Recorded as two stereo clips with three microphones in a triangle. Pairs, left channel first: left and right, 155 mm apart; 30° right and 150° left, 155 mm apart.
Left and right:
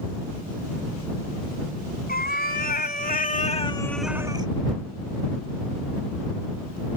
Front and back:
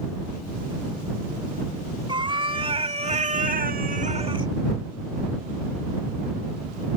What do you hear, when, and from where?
2.1 s a cat meowing: 90° left; by 4.5 s 145° right